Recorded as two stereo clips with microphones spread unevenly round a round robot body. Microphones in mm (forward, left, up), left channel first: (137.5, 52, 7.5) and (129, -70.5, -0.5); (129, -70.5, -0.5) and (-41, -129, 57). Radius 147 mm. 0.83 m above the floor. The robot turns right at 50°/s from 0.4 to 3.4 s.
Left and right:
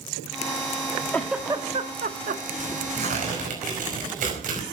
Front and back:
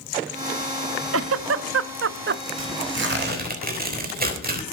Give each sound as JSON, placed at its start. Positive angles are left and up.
{"t": 1.1, "sound": "a giggle", "azimuth_deg": 170, "distance_m": 0.8}
{"t": 2.6, "sound": "tearing paper", "azimuth_deg": -165, "distance_m": 4.5}